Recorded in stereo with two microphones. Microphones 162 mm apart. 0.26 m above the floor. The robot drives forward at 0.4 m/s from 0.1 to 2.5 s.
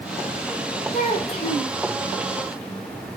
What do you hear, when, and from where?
0.9 s a child speaking: 35° left (ahead or behind), 1.6 m